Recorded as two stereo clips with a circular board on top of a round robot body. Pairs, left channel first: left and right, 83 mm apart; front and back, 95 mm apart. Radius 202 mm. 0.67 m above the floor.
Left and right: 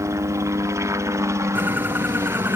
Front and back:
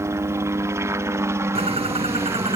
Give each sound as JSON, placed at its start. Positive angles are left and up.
{"t": 0.0, "sound": "a helicopter", "azimuth_deg": -130}
{"t": 1.6, "sound": "a bird", "azimuth_deg": -160}